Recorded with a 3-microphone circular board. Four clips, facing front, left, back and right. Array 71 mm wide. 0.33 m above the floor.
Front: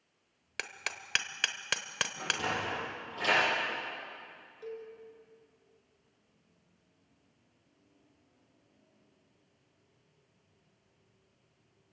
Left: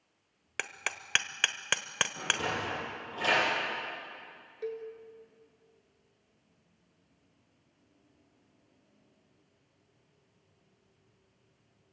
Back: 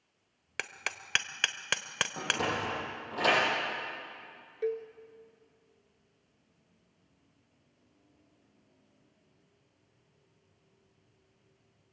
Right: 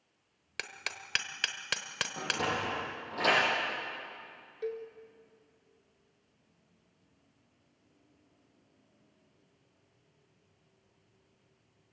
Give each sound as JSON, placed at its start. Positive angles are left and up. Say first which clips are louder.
{"t": 0.6, "sound": "hammering", "louder": "left 4 dB, back 2 dB", "azimuth_deg": 120, "distance_m": 1.0}
{"t": 2.2, "sound": "a sliding door", "louder": "right 3 dB, back 2 dB", "azimuth_deg": -160, "distance_m": 9.5}
{"t": 4.6, "sound": "a cowbell", "louder": "even, back 10 dB", "azimuth_deg": 180, "distance_m": 1.5}